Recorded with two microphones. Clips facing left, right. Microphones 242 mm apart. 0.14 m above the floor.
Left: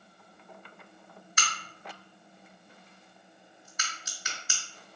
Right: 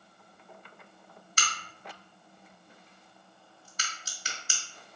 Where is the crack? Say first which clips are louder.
Even; 40° right (ahead or behind), 2 m.